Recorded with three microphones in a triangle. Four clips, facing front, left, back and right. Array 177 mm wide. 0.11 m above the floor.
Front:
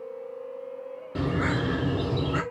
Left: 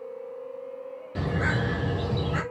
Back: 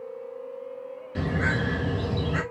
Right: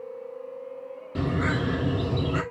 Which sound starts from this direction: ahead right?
A bird, at 1.1 s.